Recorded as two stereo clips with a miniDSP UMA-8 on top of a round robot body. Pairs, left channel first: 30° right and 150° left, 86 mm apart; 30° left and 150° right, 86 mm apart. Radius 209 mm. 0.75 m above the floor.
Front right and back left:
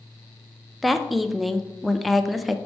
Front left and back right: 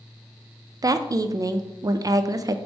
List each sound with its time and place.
0.8 s a woman speaking: 120° right, 0.5 m